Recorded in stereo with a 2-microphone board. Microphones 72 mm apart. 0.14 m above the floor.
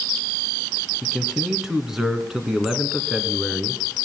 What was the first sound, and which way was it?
A man speaking, 5° right (ahead or behind).